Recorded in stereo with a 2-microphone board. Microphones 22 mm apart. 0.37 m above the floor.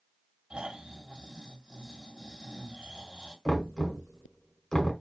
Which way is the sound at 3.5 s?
25° left (ahead or behind).